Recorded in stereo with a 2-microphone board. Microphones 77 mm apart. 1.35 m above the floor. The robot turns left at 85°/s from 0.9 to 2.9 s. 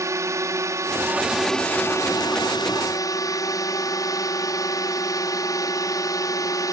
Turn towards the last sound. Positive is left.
turn(degrees=55)